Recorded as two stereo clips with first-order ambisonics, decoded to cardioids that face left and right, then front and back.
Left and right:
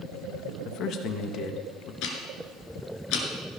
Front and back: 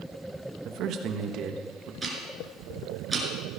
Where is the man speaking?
135° left, 1.1 m.